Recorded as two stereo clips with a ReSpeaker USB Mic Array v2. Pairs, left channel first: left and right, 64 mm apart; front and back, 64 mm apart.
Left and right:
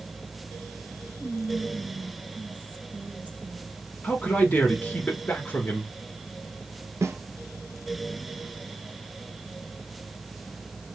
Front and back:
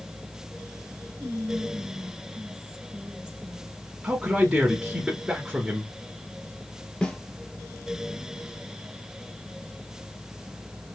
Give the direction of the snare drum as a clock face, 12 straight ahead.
2 o'clock.